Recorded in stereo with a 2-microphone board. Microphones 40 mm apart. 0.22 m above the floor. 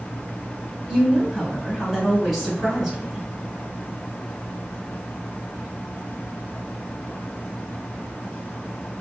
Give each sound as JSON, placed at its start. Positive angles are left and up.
{"t": 0.9, "sound": "a woman speaking", "side_deg": -5, "distance_m": 1.2}